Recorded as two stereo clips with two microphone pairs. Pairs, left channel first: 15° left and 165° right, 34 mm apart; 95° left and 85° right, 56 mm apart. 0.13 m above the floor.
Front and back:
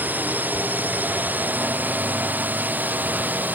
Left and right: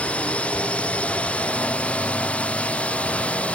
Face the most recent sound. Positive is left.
turn(degrees=165)